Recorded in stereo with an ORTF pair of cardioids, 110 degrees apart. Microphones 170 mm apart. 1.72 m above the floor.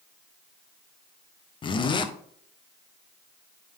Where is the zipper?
30° left, 0.7 m.